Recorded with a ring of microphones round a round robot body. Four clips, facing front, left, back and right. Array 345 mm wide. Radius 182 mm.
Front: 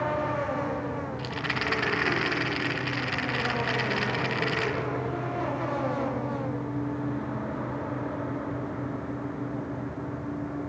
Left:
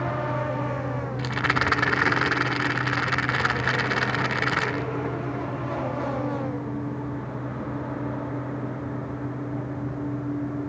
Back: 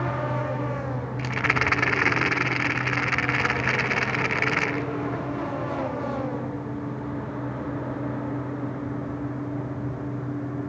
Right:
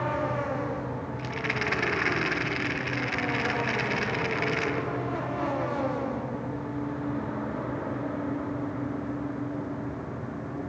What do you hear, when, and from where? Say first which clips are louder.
1.2 s a rattle: left 8 dB, back 5 dB; 125° left, 0.7 m